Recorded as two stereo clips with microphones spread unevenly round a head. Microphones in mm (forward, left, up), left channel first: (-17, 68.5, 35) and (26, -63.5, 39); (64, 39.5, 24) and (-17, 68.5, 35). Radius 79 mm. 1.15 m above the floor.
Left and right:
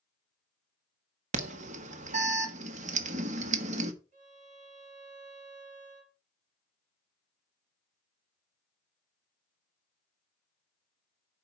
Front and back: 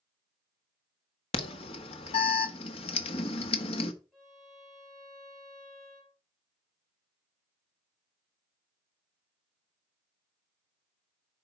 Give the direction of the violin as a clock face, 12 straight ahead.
4 o'clock.